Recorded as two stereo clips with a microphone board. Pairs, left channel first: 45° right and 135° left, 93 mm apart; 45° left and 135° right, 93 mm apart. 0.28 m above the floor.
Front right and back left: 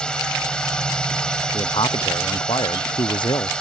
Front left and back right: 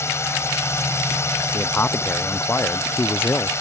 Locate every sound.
0.0 s a drone: 25° left
1.5 s a man speaking: 20° right